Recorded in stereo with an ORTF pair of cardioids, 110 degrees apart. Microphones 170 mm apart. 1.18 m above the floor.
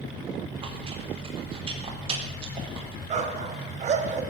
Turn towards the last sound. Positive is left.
turn(degrees=-45)